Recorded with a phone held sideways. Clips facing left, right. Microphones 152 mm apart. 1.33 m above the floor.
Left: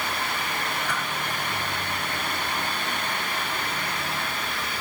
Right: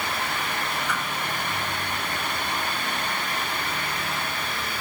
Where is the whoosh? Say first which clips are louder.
Right 1 dB; 80° left, 4 m.